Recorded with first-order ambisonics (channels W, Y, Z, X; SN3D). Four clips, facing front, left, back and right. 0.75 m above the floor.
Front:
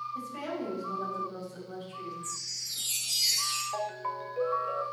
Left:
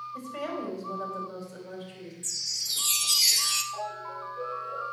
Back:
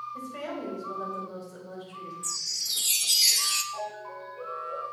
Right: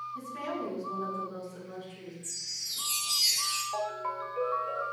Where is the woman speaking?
115° left, 3.5 m.